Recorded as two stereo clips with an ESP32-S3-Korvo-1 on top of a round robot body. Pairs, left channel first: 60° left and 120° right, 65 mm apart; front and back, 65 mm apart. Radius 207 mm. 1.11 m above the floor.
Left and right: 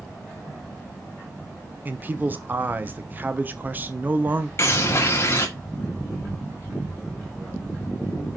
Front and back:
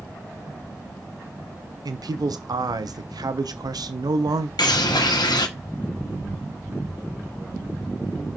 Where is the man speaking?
Straight behind, 0.9 m.